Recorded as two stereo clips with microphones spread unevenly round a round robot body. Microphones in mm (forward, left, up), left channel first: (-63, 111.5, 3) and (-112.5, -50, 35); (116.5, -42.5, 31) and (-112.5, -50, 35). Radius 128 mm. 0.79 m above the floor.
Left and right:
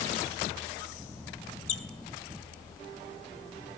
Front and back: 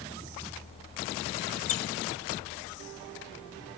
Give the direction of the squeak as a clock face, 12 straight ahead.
11 o'clock.